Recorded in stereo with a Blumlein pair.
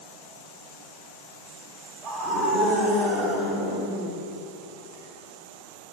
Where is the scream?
30° right, 5 m.